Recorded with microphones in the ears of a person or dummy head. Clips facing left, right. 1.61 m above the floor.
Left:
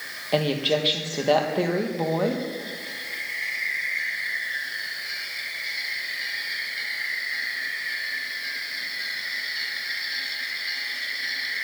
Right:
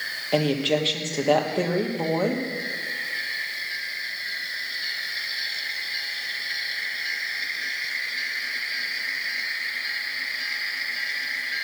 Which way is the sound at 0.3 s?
Centre (ahead or behind).